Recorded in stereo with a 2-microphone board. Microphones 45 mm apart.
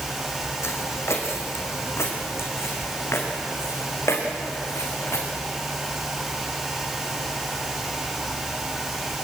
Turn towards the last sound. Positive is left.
turn(degrees=80)